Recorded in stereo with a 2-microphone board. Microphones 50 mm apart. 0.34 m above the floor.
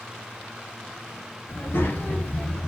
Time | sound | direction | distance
1.5 | a child speaking | 50° left (ahead or behind) | 0.9 m